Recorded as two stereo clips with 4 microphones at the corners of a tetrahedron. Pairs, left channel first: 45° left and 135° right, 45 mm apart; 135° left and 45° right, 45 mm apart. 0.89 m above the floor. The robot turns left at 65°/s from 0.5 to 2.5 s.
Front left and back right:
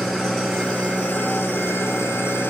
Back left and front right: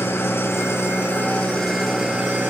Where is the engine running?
130° left, 5.5 m; by 2.5 s straight ahead, 5.5 m.